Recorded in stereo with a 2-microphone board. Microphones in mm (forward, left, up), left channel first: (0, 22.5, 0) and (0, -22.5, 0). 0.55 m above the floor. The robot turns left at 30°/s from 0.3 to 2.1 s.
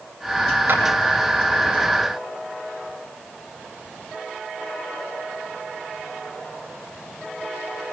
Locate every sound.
0.7 s a clap: 50° right (ahead or behind), 8 m; by 0.8 s 55° right (ahead or behind), 8 m